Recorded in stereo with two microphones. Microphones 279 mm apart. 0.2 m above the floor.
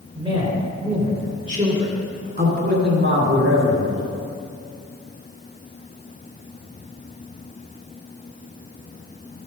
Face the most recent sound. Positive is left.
turn(degrees=-45)  # may be behind; listen again after turning